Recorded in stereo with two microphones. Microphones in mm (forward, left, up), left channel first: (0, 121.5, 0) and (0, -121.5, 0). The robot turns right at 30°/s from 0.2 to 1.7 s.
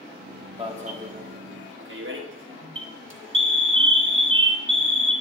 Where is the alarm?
20° right (ahead or behind), 1.2 m; by 5.1 s 55° right (ahead or behind), 1.2 m.